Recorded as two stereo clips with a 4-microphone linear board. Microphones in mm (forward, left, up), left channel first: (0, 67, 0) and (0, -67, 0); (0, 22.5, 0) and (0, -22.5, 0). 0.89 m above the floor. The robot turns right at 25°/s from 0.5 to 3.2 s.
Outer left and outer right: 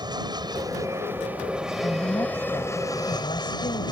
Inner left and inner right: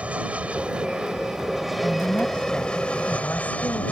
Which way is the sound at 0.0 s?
35° right.